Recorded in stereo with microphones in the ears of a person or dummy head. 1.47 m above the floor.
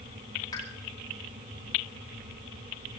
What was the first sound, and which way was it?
A pop, 20° left (ahead or behind).